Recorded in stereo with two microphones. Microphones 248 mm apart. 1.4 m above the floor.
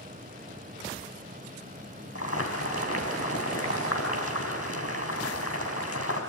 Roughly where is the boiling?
Left.